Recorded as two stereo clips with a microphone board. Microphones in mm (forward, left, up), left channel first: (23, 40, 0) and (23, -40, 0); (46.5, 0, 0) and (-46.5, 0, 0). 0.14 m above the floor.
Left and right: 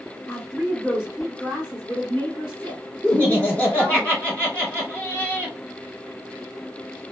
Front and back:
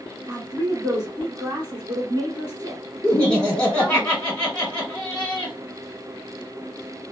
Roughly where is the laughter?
Ahead left.